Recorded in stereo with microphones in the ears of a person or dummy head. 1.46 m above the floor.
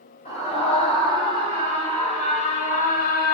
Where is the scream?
35° left (ahead or behind), 3.5 m; by 3.3 s 50° left (ahead or behind), 0.9 m.